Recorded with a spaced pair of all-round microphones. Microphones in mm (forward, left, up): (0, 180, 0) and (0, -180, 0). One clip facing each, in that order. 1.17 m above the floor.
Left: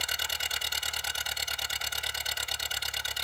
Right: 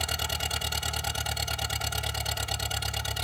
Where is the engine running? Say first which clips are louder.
Right 7 dB; 65° right (ahead or behind).